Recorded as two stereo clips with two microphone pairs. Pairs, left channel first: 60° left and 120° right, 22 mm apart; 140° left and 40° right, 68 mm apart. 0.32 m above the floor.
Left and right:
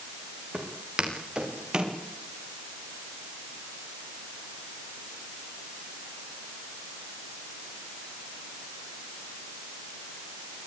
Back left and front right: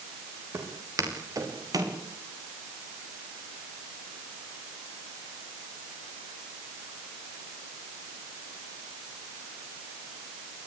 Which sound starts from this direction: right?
Footsteps, at 0.5 s.